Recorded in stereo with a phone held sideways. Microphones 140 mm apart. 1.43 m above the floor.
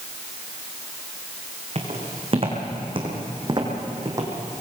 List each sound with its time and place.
1.8 s footsteps: 45° right (ahead or behind), 4.5 m; by 4.3 s 25° right (ahead or behind), 3 m